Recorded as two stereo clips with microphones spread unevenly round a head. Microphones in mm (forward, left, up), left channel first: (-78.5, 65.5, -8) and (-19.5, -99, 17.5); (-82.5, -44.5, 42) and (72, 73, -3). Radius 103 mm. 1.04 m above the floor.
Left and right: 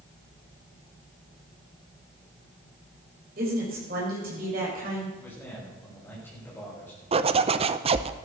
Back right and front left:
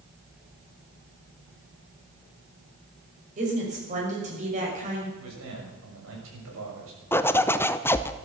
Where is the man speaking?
30° left, 6.5 m.